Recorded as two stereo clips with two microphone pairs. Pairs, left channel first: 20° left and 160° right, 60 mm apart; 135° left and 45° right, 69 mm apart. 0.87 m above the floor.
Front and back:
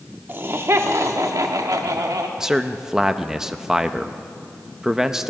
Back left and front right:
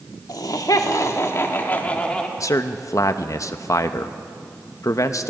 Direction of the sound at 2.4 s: 115° left.